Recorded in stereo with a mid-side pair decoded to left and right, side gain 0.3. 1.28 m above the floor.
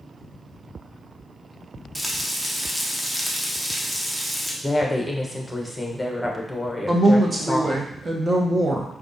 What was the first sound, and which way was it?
Frying, 5° right.